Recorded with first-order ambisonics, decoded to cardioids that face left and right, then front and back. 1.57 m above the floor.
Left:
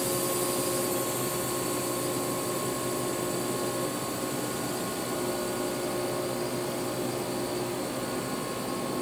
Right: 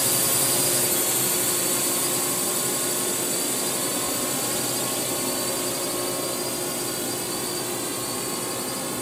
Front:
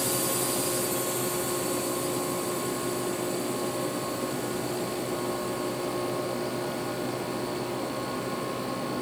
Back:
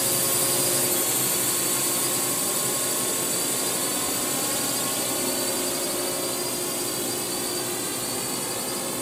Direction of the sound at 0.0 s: 115° right.